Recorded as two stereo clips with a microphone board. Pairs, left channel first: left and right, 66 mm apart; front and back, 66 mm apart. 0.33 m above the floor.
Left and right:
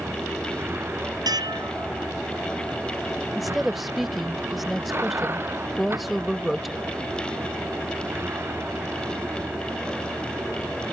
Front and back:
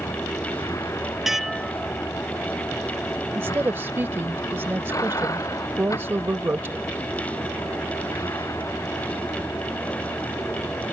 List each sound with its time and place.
0.0 s a vehicle: 35° right
1.3 s dishes clattering: 95° right
3.4 s a woman speaking: 175° right